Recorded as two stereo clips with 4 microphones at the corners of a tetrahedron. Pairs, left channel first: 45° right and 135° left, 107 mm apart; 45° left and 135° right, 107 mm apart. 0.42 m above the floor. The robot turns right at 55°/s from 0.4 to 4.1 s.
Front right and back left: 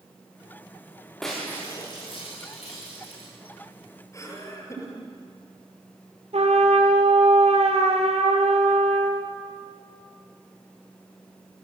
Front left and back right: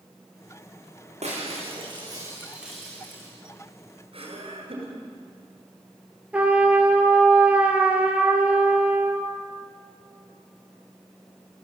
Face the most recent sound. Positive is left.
turn(degrees=145)